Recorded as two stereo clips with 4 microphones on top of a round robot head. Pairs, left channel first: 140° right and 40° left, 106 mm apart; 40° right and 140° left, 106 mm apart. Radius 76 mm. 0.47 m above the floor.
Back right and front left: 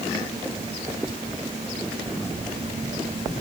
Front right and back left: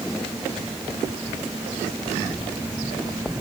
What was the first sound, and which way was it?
Only background noise.